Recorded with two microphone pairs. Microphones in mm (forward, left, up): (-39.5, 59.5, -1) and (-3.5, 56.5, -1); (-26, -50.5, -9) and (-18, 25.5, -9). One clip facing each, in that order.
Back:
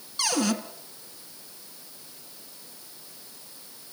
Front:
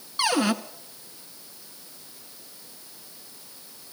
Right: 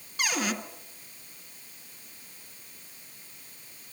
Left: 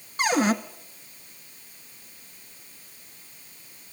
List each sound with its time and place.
0.2 s a cupboard door: 50° left, 1.3 m